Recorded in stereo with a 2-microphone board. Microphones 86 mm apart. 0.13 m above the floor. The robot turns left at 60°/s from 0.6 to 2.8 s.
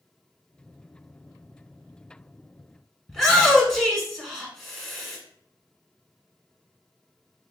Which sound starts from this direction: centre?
A shout, at 3.1 s.